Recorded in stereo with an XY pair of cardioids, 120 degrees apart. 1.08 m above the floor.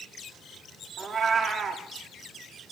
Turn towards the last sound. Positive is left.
turn(degrees=-30)